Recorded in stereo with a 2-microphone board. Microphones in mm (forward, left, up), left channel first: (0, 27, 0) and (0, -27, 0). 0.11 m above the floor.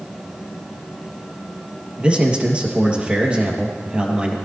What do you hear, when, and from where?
2.0 s a man speaking: 20° right (ahead or behind), 3 m